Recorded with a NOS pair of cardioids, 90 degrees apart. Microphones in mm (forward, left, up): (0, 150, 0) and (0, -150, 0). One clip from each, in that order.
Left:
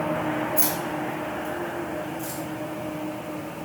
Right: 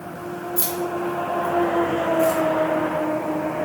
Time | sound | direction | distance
0.6 | keys jangling | 60° right | 1.2 m